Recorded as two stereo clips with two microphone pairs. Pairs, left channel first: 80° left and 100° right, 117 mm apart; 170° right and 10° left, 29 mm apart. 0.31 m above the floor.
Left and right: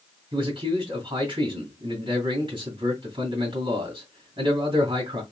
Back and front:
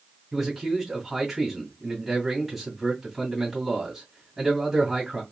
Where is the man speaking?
70° right, 2.5 m.